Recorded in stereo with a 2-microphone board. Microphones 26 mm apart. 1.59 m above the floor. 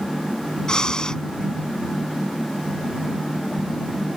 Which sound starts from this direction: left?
Breathing, at 0.7 s.